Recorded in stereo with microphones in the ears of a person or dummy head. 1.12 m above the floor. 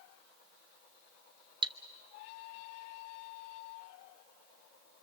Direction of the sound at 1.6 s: 25° right (ahead or behind).